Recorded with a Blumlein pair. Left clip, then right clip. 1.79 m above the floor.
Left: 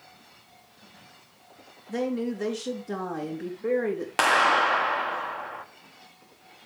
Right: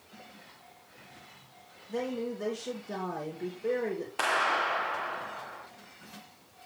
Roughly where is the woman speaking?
Ahead left.